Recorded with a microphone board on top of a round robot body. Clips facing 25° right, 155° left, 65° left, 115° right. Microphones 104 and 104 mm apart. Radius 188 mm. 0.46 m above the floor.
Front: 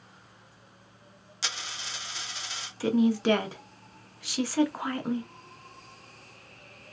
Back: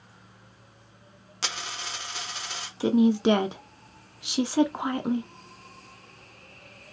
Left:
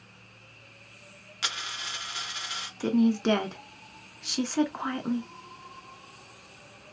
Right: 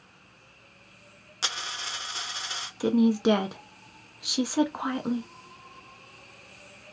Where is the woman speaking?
170° right, 0.8 m.